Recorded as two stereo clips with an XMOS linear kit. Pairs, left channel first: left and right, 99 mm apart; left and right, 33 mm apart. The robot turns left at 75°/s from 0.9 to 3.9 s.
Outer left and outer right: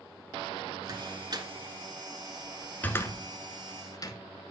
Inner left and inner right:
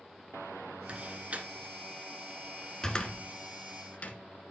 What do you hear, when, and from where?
0.9 s a door slam: 40° right (ahead or behind), 1.0 m; by 4.2 s 40° left (ahead or behind), 1.0 m